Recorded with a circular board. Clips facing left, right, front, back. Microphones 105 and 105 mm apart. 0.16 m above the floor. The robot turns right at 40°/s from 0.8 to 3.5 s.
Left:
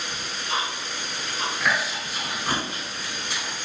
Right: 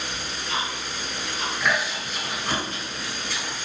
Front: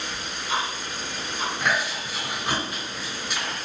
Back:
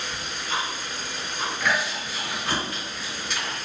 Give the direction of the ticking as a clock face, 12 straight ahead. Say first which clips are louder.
Left 3 dB, front 2 dB; 9 o'clock.